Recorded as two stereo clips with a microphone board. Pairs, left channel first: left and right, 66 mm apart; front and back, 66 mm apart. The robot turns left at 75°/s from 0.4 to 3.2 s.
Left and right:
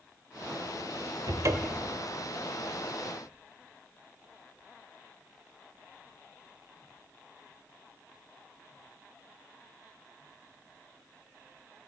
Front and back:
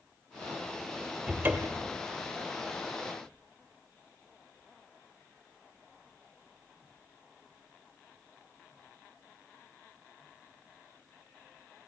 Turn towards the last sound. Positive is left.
turn(degrees=110)